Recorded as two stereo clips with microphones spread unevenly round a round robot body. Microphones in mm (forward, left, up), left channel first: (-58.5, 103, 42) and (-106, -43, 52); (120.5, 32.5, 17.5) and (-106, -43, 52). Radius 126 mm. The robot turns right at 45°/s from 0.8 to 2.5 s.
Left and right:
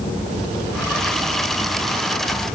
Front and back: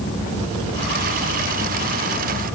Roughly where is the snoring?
I don't hear snoring.